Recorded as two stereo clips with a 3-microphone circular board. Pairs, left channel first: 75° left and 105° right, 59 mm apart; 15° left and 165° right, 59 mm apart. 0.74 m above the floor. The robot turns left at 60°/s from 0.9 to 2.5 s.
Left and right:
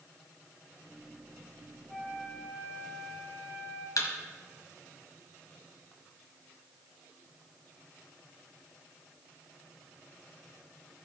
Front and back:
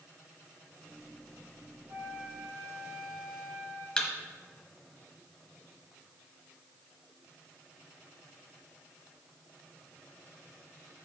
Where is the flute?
165° left, 3.5 m; by 3.9 s 130° left, 3.5 m.